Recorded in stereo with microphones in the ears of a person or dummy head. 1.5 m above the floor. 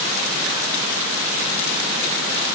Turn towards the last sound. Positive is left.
No sound to turn to.